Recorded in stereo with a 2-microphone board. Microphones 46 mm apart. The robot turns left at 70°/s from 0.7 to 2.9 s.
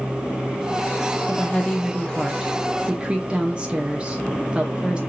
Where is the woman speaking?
25° left (ahead or behind), 0.5 m; by 5.0 s 25° right (ahead or behind), 0.5 m.